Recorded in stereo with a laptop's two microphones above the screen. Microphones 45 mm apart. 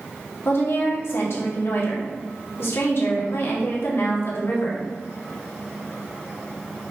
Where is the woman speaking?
60° left (ahead or behind), 1.5 m.